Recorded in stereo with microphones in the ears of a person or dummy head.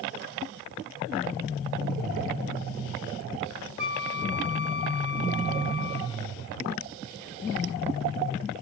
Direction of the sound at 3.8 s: 60° right (ahead or behind).